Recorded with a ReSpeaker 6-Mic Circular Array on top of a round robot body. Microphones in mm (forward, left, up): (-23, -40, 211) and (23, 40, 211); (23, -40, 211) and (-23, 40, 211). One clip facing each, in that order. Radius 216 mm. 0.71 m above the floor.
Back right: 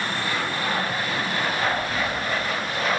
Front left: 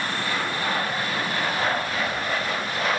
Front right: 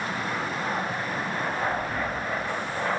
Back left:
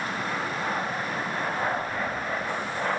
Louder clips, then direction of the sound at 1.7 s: Even, even; 85° right.